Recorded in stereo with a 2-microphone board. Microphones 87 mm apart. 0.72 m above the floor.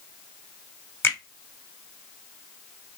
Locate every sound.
1.0 s a finger snap: 25° left (ahead or behind), 1.4 m